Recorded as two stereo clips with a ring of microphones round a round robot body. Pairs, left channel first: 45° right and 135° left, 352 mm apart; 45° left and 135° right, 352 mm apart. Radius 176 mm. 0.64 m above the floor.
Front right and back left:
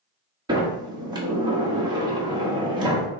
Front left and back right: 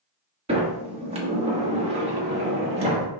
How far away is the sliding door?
About 0.9 m.